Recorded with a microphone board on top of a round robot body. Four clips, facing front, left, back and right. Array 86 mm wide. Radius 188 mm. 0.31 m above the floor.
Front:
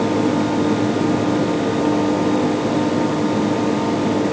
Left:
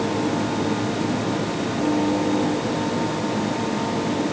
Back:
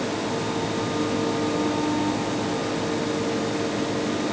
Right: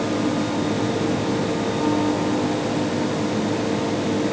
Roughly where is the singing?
I don't hear singing.